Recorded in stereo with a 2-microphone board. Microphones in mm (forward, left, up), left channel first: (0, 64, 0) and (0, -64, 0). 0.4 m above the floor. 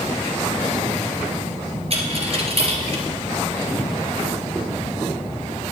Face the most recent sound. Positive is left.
turn(degrees=-50)  # may be behind; listen again after turning